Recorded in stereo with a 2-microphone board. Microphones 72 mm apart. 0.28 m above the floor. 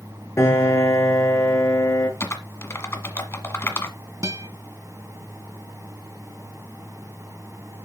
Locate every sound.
0.4 s a piano: 40° left (ahead or behind), 2 m
2.2 s typing on a keyboard: 35° left (ahead or behind), 1.4 m
4.2 s a guitar: 50° right (ahead or behind), 1.4 m